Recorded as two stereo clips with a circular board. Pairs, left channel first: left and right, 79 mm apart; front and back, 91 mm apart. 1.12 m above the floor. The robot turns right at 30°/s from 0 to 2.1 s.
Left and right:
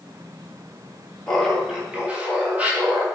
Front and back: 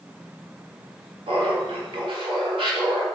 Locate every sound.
1.3 s laughter: 175° left, 2 m; by 3.0 s 160° right, 2 m